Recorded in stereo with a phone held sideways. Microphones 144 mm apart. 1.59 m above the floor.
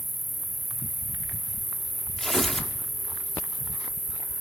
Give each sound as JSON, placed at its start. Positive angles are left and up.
{"t": 0.0, "sound": "an insect", "side_deg": -75, "distance_m": 1.8}
{"t": 2.2, "sound": "tearing paper", "side_deg": 0, "distance_m": 1.2}